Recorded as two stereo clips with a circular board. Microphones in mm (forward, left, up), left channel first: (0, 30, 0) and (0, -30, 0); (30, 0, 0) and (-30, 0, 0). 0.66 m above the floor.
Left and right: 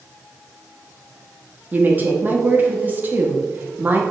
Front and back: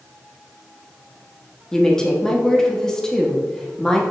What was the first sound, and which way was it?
A woman speaking, 70° right.